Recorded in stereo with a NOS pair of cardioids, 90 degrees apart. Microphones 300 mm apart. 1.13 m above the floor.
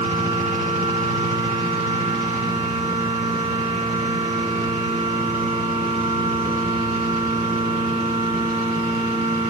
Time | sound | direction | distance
0.0 | a machine running | 20° right | 10 m